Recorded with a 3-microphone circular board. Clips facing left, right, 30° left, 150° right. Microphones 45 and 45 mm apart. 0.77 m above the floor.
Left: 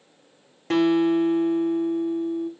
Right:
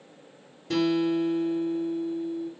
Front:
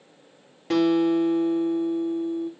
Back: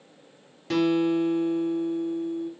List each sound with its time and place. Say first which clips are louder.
0.7 s a guitar: left 5 dB, front 2 dB; 100° left, 1.9 m